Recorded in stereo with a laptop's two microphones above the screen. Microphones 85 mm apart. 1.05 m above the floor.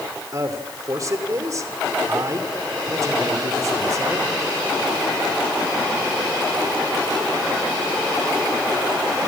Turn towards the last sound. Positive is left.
turn(degrees=-45)  # may be behind; listen again after turning